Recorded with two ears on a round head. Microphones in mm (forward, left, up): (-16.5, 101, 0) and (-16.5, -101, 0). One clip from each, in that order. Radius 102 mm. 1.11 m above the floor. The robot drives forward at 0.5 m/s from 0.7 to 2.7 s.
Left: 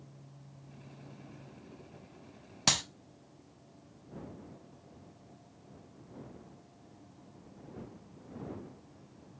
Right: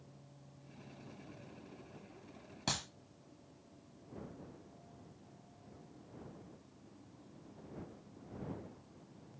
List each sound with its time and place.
2.7 s a clap: 70° left (ahead or behind), 1.1 m